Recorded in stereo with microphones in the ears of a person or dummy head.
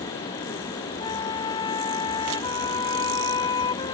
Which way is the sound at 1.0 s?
25° left (ahead or behind).